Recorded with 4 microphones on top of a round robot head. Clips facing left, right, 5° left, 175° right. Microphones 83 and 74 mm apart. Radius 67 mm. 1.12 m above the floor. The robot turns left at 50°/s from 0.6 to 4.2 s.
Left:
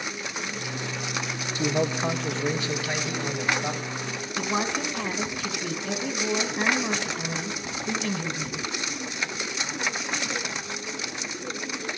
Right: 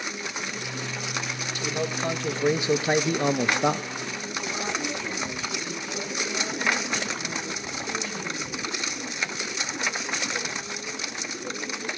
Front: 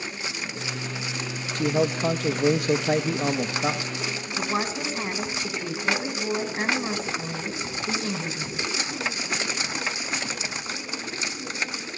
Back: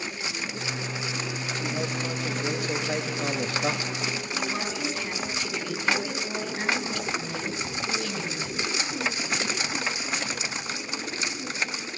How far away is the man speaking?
About 1.3 m.